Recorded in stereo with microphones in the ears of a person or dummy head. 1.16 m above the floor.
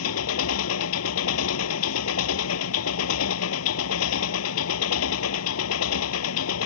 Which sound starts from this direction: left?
An engine running, at 0.0 s.